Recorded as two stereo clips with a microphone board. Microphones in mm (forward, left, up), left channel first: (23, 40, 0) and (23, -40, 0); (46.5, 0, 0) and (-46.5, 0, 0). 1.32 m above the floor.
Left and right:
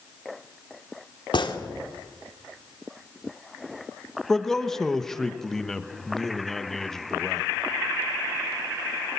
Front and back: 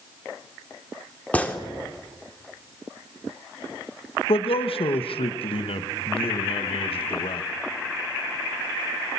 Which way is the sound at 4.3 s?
5° left.